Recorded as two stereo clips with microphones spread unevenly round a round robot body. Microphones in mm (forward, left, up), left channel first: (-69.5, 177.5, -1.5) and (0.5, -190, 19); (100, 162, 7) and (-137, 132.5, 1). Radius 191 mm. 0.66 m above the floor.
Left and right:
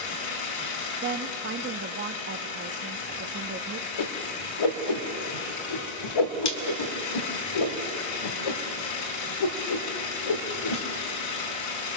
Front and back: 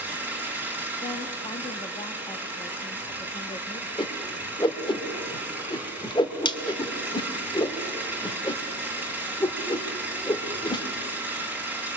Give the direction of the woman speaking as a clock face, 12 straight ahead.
2 o'clock.